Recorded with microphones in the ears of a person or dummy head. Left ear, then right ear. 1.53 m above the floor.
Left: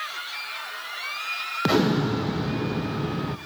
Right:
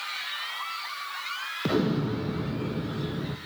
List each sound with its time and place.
1.6 s an explosion: 25° left (ahead or behind), 0.8 m